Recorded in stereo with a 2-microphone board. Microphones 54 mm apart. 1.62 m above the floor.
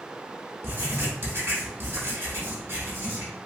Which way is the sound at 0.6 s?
45° right (ahead or behind).